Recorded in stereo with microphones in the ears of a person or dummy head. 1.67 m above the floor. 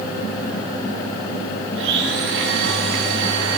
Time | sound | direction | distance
1.8 | a blender | 75° right (ahead or behind) | 8.5 m